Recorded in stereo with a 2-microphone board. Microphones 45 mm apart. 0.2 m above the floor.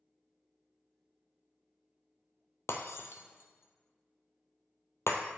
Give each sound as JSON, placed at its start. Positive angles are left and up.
{"t": 2.7, "sound": "breaking glass", "side_deg": 85, "distance_m": 0.8}